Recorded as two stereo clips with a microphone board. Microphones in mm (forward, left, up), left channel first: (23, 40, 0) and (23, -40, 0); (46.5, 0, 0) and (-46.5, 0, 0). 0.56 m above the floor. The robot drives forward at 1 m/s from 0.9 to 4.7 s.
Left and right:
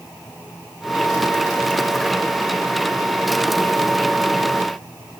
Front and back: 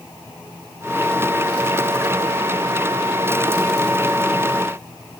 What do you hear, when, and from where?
Only background noise.